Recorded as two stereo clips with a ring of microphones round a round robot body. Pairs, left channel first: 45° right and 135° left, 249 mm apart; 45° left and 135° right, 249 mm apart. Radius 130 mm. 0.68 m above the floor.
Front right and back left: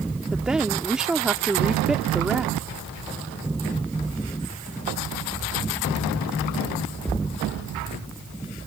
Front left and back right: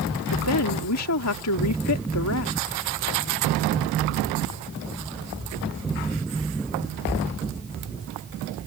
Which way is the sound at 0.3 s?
50° left.